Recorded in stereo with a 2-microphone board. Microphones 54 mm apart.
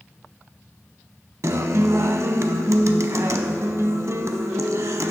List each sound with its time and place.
1.4 s a guitar: 65° right (ahead or behind), 0.6 m